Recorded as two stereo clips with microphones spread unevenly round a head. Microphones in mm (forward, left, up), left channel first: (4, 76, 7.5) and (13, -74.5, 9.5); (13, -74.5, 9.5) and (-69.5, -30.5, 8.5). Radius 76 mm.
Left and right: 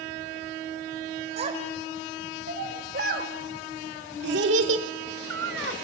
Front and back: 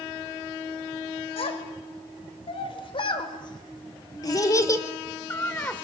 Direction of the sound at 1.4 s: 35° right.